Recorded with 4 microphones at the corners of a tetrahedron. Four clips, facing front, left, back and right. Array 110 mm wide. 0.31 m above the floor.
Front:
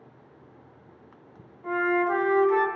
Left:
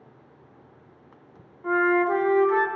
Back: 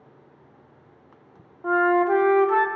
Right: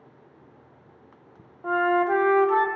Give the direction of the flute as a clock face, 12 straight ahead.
4 o'clock.